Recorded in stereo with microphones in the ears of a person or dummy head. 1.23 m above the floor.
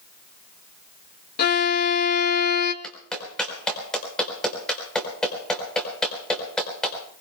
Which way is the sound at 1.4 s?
50° left (ahead or behind).